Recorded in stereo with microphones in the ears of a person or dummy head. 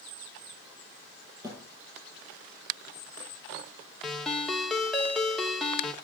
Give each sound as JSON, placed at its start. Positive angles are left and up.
{"t": 1.4, "sound": "a thud", "side_deg": -25, "distance_m": 7.5}
{"t": 4.0, "sound": "a ringtone", "side_deg": 0, "distance_m": 1.2}